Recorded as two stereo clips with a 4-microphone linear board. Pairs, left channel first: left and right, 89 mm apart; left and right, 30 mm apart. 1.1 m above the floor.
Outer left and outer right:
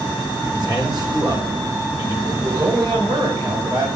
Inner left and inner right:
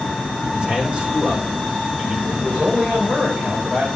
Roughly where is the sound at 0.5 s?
Right.